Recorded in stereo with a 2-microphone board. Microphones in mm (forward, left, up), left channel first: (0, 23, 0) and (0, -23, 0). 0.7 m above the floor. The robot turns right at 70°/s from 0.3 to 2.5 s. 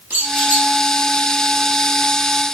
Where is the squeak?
50° right (ahead or behind), 1.2 m; by 0.7 s 30° right (ahead or behind), 1.2 m.